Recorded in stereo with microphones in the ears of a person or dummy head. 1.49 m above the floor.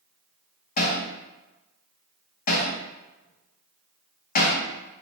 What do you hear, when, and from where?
0.8 s hammering: 40° left (ahead or behind), 0.7 m